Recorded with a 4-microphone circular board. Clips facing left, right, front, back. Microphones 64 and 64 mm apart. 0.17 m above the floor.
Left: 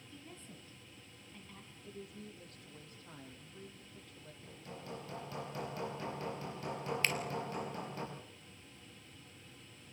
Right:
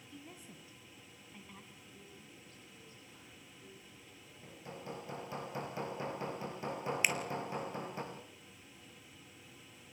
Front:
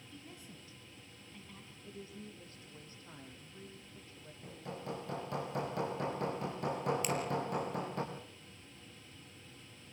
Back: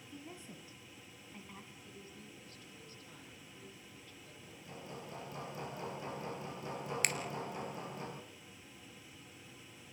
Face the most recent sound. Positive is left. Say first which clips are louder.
# right 1 dB, front 1 dB
turn(degrees=-165)